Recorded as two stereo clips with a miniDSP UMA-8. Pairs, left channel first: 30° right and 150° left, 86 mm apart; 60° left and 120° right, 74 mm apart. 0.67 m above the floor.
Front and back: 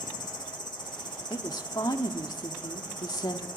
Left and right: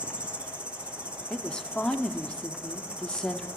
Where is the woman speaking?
15° right, 1.6 m.